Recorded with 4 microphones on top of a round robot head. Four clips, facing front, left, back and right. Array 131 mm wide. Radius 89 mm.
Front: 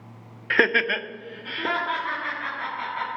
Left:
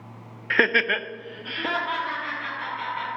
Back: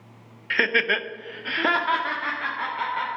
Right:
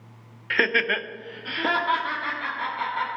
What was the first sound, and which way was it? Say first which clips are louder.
Laughter: left 2 dB, front 2 dB; 30° left.